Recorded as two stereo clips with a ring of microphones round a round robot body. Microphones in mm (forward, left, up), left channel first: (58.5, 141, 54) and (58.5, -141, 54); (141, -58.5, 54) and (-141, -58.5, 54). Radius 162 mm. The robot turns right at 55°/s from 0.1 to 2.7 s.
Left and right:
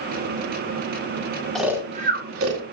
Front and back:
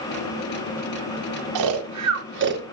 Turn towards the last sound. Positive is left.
turn(degrees=-120)